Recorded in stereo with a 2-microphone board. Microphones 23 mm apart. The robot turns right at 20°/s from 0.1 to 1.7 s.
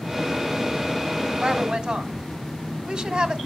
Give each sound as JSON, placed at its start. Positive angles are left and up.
{"t": 1.4, "sound": "a woman speaking", "side_deg": -40, "distance_m": 2.0}